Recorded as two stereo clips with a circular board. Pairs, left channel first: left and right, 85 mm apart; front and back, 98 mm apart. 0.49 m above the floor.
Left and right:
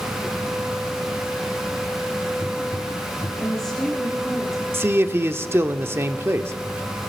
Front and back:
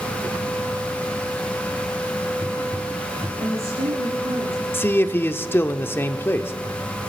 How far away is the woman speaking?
About 9 m.